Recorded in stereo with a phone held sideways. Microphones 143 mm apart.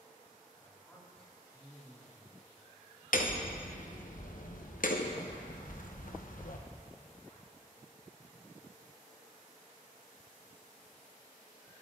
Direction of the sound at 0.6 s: 5° left (ahead or behind).